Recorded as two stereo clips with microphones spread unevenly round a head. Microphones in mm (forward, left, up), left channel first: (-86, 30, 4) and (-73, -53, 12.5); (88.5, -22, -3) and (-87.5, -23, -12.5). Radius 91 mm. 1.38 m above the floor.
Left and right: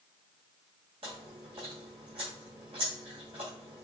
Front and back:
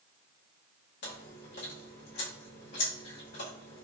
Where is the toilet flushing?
No toilet flushing in this recording.